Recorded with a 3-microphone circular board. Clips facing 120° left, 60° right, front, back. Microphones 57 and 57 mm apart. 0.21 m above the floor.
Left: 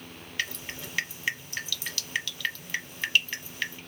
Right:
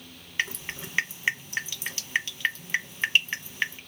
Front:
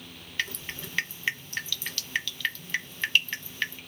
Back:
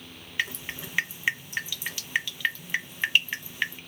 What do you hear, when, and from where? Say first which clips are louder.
0.4 s dripping: right 4 dB, back 2 dB; 110° right, 0.7 m